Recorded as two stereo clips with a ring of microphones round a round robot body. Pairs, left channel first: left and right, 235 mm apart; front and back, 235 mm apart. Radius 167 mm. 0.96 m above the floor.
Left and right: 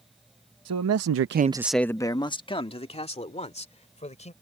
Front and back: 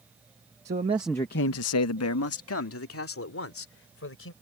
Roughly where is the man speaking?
Behind right.